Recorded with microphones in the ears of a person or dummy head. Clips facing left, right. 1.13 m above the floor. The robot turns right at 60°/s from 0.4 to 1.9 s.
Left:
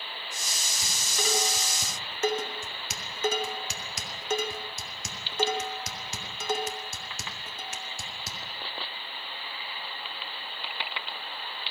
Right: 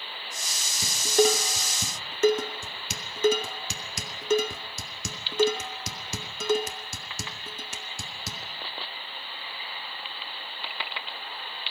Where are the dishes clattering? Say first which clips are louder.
Right 13 dB; 25° right (ahead or behind), 1.8 m; by 8.4 s 85° right, 1.8 m.